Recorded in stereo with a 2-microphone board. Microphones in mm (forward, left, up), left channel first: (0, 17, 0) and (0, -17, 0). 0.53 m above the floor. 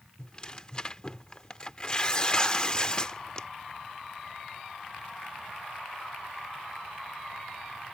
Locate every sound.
0.2 s tearing paper: 25° left (ahead or behind)